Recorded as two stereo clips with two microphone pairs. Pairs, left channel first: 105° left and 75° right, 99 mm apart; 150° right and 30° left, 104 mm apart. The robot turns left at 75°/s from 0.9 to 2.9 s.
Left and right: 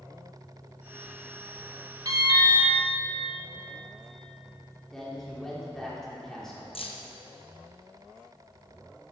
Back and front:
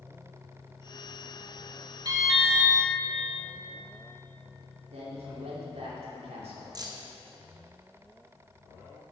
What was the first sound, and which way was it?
An alarm, 20° right.